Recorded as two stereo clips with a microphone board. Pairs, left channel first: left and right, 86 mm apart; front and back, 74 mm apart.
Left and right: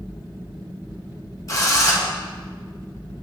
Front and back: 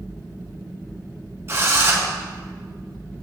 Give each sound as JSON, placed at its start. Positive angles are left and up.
{"t": 1.5, "sound": "a drill", "azimuth_deg": 130, "distance_m": 1.3}